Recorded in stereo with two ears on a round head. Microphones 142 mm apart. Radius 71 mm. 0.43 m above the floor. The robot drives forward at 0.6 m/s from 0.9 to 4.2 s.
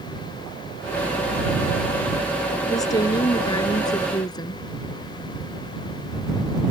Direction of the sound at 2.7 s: 25° left (ahead or behind).